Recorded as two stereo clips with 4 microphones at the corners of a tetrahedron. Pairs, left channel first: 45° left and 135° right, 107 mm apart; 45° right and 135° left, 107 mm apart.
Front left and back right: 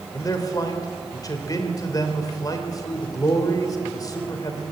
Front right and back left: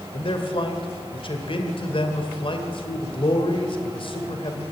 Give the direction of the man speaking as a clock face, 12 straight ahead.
12 o'clock.